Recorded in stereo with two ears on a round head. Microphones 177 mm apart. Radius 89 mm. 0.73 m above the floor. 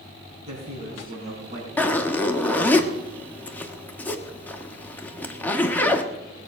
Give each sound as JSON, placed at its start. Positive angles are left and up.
{"t": 0.5, "sound": "a man speaking", "side_deg": -35, "distance_m": 6.0}
{"t": 1.8, "sound": "a zipper", "side_deg": 10, "distance_m": 1.2}